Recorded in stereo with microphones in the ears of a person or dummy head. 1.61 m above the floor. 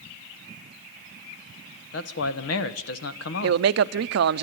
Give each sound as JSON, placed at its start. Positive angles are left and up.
{"t": 1.9, "sound": "a man speaking", "side_deg": 85, "distance_m": 1.7}
{"t": 3.4, "sound": "a man speaking", "side_deg": -70, "distance_m": 0.7}